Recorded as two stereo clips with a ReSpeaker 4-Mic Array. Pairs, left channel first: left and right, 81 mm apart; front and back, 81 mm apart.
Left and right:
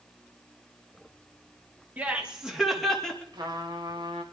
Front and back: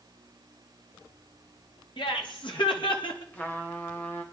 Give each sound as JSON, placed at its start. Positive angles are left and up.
{"t": 2.0, "sound": "laughter", "azimuth_deg": -20, "distance_m": 2.5}
{"t": 3.3, "sound": "a trumpet", "azimuth_deg": -70, "distance_m": 2.0}